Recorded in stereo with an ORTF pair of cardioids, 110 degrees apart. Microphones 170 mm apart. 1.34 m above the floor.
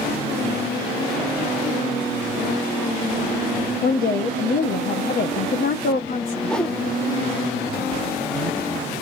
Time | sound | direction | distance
3.8 | a woman speaking | 60° left | 0.9 m
6.5 | a whoosh | 5° left | 0.7 m